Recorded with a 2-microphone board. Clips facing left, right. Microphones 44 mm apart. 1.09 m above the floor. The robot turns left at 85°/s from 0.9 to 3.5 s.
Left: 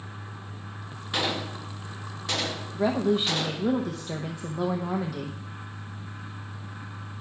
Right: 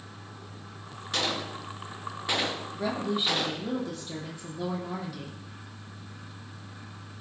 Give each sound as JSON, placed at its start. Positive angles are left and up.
{"t": 1.1, "sound": "a gunshot", "side_deg": 10, "distance_m": 0.7}
{"t": 2.7, "sound": "a woman speaking", "azimuth_deg": 155, "distance_m": 0.8}